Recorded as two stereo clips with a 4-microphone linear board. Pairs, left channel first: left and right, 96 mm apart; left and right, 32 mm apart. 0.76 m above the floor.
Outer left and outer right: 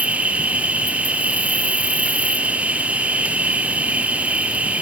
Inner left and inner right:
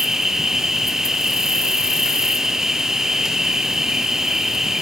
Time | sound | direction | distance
0.0 | an insect | 15° right (ahead or behind) | 1.5 m